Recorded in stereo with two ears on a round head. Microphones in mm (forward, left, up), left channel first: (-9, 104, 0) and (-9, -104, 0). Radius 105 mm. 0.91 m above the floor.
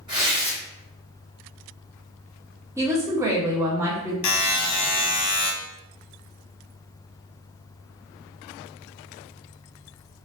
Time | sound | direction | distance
0.1 | tearing paper | 20° right (ahead or behind) | 1.2 m
2.8 | a woman speaking | 10° right (ahead or behind) | 0.6 m
4.2 | a buzzer | 80° left | 0.7 m